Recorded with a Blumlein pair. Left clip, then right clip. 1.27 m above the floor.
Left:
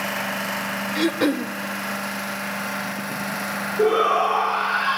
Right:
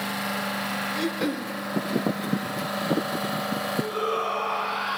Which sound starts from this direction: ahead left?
A shout, at 3.8 s.